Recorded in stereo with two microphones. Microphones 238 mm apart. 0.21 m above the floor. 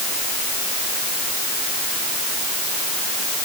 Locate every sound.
Only background noise.